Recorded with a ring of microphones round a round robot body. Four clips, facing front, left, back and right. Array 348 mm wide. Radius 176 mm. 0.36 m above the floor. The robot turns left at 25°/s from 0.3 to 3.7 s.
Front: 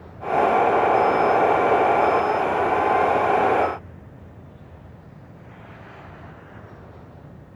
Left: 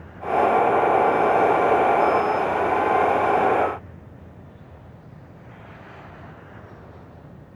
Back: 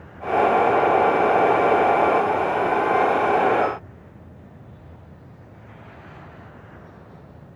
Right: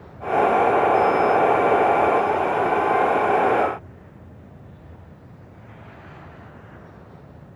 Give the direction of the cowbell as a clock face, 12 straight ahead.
I don't hear a cowbell.